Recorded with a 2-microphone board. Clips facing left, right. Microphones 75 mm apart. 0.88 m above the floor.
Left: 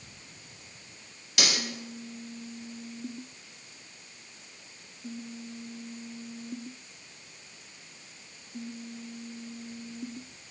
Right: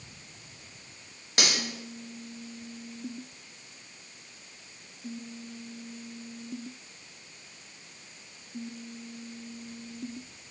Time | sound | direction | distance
1.4 | cutlery clinking | 40° right (ahead or behind) | 2.5 m